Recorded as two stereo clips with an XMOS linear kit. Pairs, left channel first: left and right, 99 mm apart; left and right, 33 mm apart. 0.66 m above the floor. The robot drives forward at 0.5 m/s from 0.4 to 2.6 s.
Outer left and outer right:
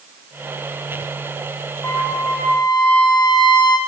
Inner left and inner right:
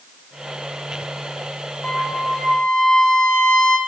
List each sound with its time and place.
1.8 s a trumpet: 25° left (ahead or behind), 2 m; by 3.8 s 20° left (ahead or behind), 2.5 m